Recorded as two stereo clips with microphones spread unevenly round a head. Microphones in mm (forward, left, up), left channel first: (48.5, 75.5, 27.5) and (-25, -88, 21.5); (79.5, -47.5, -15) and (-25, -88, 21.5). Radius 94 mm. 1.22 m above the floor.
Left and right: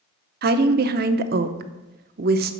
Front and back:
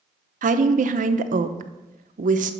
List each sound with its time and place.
0.4 s a woman speaking: 150° right, 0.8 m